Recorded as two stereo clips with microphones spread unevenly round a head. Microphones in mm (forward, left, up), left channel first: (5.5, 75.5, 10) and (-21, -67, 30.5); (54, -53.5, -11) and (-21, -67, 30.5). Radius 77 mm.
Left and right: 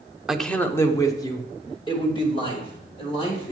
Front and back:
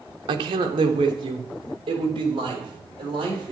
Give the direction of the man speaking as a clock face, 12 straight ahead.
6 o'clock.